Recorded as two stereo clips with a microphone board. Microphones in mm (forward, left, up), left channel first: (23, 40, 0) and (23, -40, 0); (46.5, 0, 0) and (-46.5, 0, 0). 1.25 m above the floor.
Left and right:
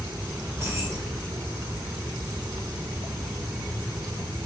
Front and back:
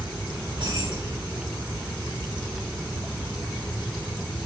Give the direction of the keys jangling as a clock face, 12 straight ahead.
5 o'clock.